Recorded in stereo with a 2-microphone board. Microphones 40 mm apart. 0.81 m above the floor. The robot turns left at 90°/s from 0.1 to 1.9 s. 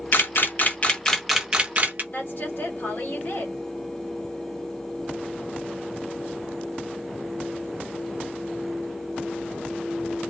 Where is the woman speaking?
65° left (ahead or behind), 1.3 m.